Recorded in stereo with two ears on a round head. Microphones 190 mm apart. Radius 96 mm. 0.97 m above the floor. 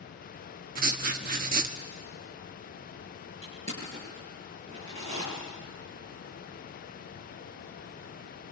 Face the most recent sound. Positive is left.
turn(degrees=-30)  # may be behind; listen again after turning